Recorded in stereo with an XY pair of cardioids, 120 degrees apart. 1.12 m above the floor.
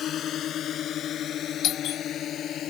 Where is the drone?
60° left.